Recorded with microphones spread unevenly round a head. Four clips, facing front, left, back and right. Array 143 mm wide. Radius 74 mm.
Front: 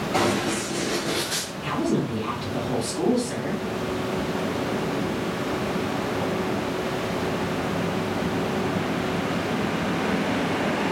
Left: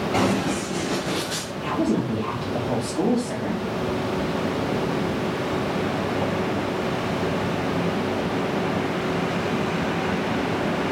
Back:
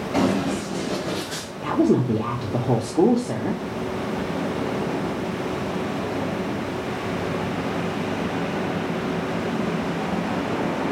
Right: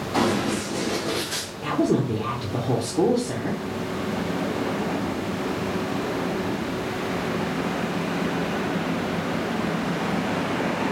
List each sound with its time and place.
0.1 s running footsteps: 100° left, 1.7 m; by 1.5 s 155° left, 1.5 m
1.6 s a woman speaking: 165° right, 0.7 m